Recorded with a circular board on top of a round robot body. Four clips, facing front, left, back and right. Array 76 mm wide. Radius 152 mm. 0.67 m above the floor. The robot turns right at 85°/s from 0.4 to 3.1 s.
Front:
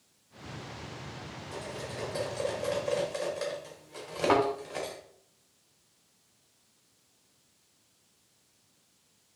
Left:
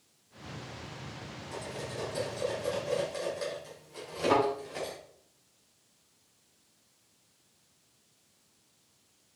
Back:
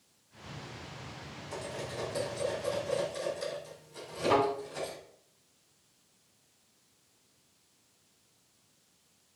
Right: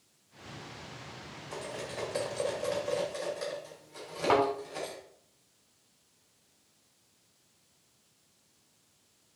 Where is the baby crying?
No baby crying in this recording.